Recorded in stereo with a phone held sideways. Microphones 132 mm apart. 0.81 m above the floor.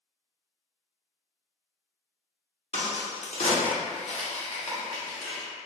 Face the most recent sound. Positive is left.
turn(degrees=55)  # may be behind; listen again after turning